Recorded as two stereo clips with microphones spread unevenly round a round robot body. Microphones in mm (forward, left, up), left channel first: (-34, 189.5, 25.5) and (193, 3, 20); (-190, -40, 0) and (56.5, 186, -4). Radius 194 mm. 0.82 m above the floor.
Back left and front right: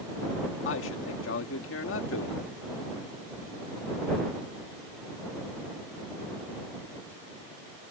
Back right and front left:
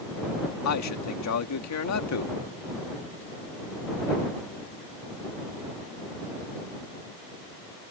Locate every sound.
0.7 s a man speaking: 170° right